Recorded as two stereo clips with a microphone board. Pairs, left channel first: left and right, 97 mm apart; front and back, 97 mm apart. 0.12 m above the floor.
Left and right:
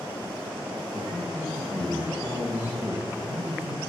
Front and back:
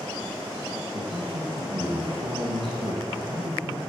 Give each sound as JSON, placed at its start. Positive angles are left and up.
{"t": 0.9, "sound": "a man speaking", "azimuth_deg": -160, "distance_m": 3.0}